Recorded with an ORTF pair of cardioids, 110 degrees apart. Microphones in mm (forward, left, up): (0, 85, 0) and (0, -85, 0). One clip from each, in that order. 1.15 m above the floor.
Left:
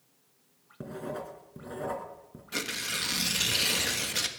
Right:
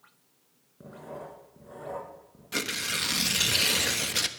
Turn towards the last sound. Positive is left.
turn(degrees=-15)